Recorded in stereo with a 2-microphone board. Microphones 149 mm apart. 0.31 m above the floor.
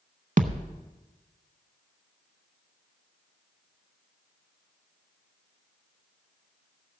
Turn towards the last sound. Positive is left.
turn(degrees=-60)  # may be behind; listen again after turning